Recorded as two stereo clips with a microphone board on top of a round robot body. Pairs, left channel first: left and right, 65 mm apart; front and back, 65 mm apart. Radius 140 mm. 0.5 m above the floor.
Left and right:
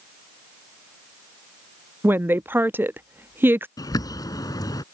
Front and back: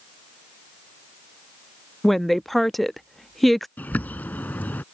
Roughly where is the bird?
Left.